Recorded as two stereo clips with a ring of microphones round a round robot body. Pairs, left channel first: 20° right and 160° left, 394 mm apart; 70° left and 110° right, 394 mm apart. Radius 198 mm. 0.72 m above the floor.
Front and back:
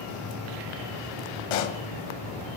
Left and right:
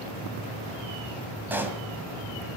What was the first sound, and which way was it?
A pop, 25° right.